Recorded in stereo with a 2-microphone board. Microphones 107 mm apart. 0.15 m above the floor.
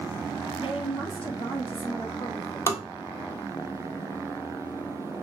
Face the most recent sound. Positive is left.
turn(degrees=25)  # may be behind; listen again after turning